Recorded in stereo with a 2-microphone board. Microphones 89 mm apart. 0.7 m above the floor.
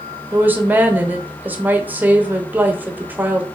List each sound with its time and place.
0.3 s a woman speaking: 20° right (ahead or behind), 0.7 m